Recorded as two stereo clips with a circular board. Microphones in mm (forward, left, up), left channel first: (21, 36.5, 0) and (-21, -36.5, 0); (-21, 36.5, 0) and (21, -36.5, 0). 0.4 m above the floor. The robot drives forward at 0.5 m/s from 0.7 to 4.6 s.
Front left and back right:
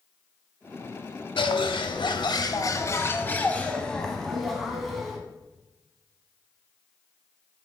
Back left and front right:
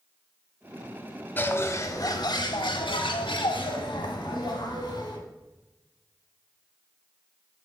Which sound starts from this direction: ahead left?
A bird, at 1.4 s.